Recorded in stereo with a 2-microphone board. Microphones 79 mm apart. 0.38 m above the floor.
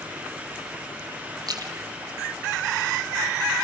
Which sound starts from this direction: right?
A splash, at 1.5 s.